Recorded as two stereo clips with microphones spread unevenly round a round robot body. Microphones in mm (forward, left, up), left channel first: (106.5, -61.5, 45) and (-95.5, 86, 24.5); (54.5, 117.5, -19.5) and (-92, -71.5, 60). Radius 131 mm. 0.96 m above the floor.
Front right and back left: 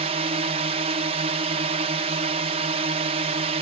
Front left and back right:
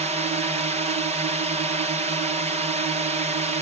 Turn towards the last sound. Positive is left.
turn(degrees=160)